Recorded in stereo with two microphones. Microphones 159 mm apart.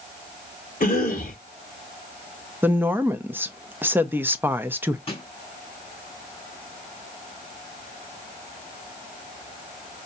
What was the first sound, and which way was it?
A cough, 60° left (ahead or behind).